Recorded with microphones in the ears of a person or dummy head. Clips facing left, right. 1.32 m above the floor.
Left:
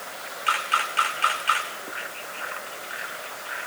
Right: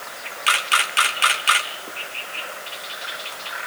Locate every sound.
0.5 s a camera shutter: 75° right (ahead or behind), 1.9 m